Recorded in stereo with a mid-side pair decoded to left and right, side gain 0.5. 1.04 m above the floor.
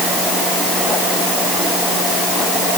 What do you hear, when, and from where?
Only background noise.